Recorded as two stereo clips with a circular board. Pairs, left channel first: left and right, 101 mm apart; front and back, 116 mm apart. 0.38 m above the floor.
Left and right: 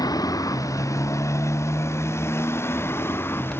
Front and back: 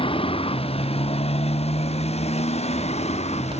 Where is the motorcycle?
40° left; by 3.6 s 25° left.